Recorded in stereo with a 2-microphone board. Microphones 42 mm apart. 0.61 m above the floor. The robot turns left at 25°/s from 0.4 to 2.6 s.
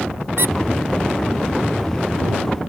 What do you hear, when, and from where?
0.4 s a squeak: 75° right (ahead or behind)